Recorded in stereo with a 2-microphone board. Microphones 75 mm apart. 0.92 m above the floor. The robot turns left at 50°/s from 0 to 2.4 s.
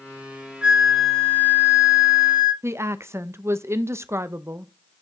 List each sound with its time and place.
0.6 s a flute: 170° right, 1.2 m; by 2.5 s 105° left, 1.2 m
2.6 s a woman speaking: 35° right (ahead or behind), 0.6 m